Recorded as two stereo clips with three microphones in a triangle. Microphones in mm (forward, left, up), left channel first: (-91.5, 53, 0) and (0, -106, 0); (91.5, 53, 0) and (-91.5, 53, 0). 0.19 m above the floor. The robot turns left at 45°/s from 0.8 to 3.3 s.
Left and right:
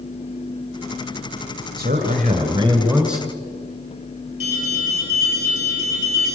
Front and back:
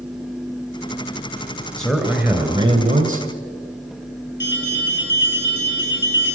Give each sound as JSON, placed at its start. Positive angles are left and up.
{"t": 1.8, "sound": "a man speaking", "azimuth_deg": -85, "distance_m": 3.0}
{"t": 4.4, "sound": "an alarm", "azimuth_deg": -15, "distance_m": 7.0}